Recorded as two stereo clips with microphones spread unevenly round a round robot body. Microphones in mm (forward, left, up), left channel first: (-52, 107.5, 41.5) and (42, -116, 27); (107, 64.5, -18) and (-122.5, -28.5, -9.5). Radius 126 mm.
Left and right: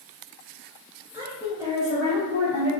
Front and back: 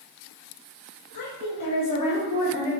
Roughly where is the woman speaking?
Ahead.